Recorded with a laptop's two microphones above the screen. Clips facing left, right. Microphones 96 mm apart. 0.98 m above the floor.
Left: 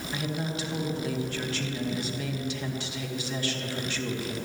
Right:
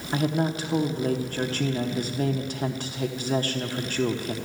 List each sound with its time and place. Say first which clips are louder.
0.1 s a woman speaking: right 8 dB; 45° right (ahead or behind), 1.1 m